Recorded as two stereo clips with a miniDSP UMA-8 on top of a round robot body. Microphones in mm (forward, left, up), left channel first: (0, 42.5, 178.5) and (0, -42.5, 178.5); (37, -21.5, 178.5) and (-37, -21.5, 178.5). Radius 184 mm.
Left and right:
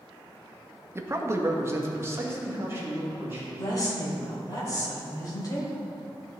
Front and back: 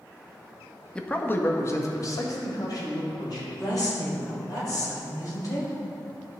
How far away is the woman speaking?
About 3 m.